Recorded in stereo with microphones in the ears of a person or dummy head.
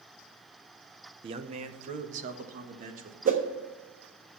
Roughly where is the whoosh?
Right.